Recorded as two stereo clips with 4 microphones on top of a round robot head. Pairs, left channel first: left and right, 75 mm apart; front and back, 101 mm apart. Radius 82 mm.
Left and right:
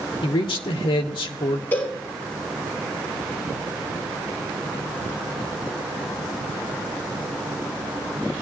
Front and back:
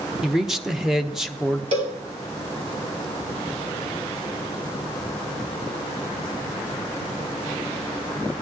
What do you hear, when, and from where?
0.2 s a man speaking: 95° left, 1.0 m
1.7 s a cowbell: 165° left, 2.5 m